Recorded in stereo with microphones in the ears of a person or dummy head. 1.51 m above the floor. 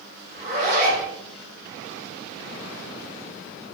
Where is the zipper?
55° right (ahead or behind), 2 m.